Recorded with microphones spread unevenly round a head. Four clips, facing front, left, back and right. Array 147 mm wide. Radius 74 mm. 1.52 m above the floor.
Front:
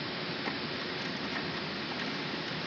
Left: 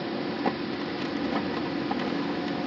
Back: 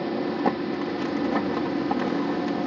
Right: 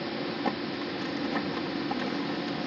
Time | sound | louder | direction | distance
0.0 | a machine running | left 2 dB, back 13 dB | 175° left | ?